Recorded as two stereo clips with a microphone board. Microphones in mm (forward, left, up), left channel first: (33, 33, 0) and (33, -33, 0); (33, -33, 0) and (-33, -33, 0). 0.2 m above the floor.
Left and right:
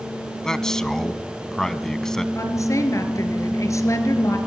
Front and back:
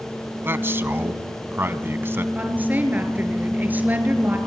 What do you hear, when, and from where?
0.4 s a man speaking: 165° left, 1.2 m
2.4 s a woman speaking: 120° left, 3.5 m